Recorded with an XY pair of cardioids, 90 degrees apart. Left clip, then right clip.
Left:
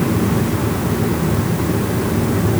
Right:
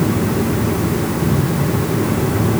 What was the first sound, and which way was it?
Only background noise.